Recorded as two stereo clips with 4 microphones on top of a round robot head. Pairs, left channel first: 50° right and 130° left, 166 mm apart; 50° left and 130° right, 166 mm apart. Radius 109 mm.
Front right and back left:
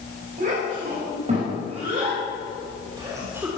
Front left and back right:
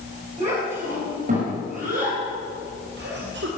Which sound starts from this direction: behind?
A child speaking, at 0.4 s.